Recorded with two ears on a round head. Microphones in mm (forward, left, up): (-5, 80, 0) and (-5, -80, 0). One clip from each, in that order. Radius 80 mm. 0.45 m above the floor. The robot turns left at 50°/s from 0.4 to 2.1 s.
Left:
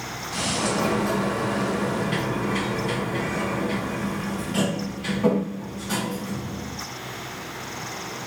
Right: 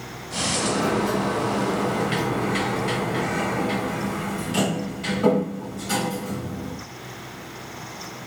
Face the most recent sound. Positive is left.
turn(degrees=-45)